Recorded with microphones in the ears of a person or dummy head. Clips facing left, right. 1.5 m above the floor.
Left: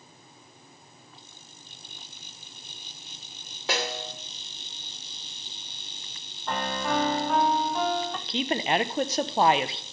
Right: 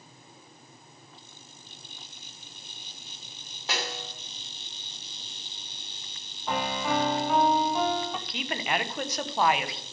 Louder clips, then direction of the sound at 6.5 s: Even; centre (ahead or behind).